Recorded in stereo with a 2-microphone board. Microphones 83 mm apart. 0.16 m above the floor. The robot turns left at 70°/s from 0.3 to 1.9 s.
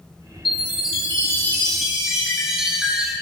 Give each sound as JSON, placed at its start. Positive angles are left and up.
{"t": 0.5, "sound": "a chime", "azimuth_deg": 95, "distance_m": 4.0}